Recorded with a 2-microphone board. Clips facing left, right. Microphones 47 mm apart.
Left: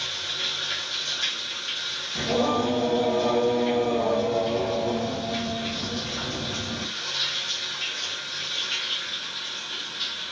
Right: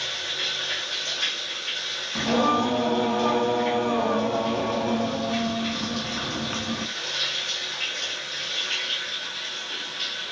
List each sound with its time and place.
0.0 s running water: 65° right (ahead or behind), 1.1 m
2.1 s singing: 50° right (ahead or behind), 0.7 m